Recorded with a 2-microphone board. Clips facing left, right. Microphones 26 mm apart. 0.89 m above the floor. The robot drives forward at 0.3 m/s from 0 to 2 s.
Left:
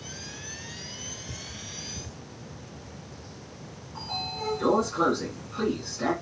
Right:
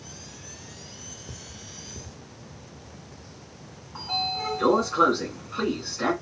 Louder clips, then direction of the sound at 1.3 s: Left 3 dB; 45° right (ahead or behind).